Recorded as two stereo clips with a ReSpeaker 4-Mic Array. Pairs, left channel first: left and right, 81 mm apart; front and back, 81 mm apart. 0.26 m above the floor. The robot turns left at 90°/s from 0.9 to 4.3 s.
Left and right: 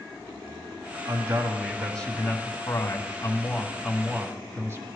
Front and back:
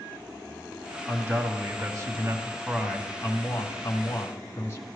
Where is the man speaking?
115° right, 1.9 m; by 4.9 s 45° right, 1.9 m.